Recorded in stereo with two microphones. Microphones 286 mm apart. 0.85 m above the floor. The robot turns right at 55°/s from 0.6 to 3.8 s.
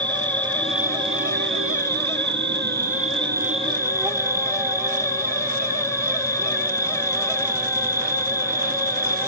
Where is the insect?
175° left; by 9.3 s 10° right.